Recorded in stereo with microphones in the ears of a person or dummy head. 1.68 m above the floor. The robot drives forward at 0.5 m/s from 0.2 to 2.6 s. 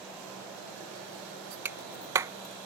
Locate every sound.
1.6 s a clap: 10° right (ahead or behind); by 2.3 s 15° right (ahead or behind)